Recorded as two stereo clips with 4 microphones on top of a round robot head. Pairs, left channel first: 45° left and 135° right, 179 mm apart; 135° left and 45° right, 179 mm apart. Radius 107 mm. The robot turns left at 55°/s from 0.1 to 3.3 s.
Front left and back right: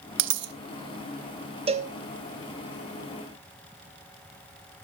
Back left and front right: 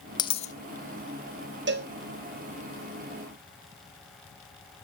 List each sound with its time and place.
0.2 s a dropped coin: 155° right, 0.7 m; by 0.5 s 175° right, 0.7 m
1.7 s a cowbell: 75° right, 1.4 m; by 1.9 s 90° right, 1.4 m